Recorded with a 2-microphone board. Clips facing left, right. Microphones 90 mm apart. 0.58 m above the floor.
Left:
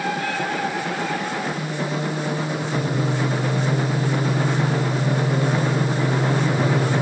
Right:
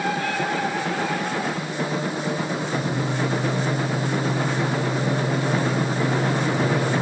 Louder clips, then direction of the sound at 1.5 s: Even; 45° left (ahead or behind).